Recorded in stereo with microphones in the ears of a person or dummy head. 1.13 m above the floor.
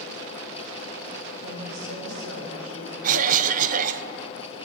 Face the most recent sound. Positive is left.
turn(degrees=-40)  # may be behind; listen again after turning